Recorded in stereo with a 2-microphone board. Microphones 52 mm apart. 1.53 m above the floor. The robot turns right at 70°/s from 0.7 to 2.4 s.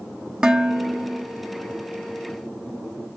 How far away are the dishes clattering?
About 0.9 m.